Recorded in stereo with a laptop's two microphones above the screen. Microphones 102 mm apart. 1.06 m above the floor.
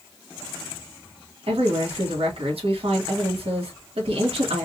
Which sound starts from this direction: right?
A woman speaking, at 1.5 s.